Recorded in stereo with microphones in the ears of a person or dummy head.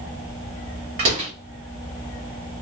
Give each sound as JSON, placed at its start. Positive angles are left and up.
{"t": 1.0, "sound": "a door slam", "side_deg": -30, "distance_m": 0.9}